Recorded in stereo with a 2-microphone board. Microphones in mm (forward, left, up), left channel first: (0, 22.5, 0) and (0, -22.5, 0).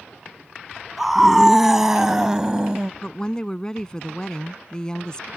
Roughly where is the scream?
Centre.